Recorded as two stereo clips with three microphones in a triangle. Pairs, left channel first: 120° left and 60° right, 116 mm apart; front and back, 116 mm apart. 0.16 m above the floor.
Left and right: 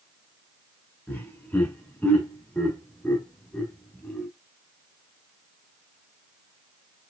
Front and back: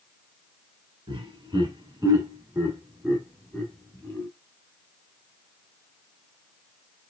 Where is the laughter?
175° right, 1.7 m; by 4.3 s 45° left, 1.4 m.